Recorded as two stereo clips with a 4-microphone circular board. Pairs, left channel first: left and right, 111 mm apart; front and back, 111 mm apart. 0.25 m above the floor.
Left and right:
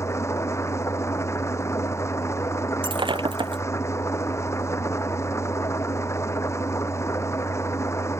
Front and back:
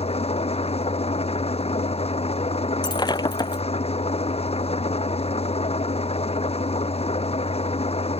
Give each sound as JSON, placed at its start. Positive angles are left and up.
{"t": 0.0, "sound": "an engine running", "azimuth_deg": 25}
{"t": 2.8, "sound": "breaking glass", "azimuth_deg": -50}